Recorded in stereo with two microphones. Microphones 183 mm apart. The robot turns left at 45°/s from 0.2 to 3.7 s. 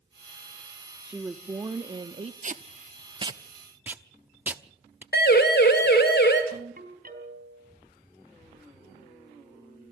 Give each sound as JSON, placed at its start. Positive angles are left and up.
{"t": 1.1, "sound": "a woman speaking", "azimuth_deg": -10, "distance_m": 0.7}
{"t": 2.4, "sound": "tape being pulled", "side_deg": -45, "distance_m": 0.8}
{"t": 5.1, "sound": "a siren", "side_deg": 60, "distance_m": 2.5}
{"t": 6.5, "sound": "a ringtone", "side_deg": -50, "distance_m": 3.5}